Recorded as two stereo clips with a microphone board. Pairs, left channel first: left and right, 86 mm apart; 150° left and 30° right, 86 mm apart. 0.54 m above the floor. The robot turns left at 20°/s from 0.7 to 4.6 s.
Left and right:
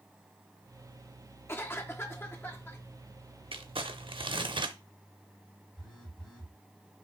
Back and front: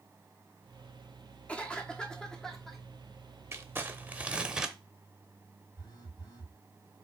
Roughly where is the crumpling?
Right.